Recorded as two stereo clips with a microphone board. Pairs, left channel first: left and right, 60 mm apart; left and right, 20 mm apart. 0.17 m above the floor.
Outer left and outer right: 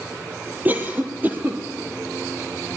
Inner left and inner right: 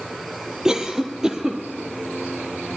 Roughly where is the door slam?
I don't hear a door slam.